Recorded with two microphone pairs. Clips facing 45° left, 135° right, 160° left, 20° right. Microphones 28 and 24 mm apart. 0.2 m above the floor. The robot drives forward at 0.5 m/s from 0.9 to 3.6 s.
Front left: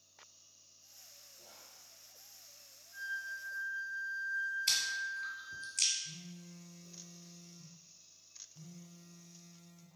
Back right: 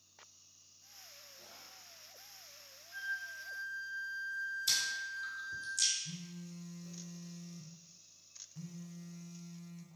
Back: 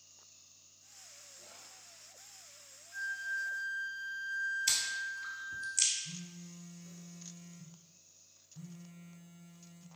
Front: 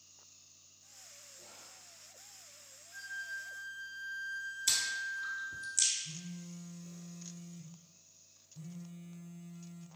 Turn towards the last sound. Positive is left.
turn(degrees=-160)